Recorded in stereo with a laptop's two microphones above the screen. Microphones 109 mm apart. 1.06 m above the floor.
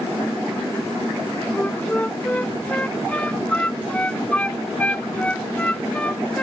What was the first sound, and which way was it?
A flute, 10° left (ahead or behind).